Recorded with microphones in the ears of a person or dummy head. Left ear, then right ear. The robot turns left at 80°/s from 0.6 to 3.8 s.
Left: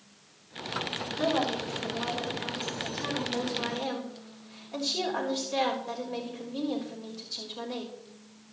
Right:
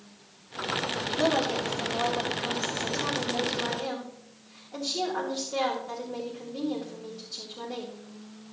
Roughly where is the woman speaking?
Ahead right.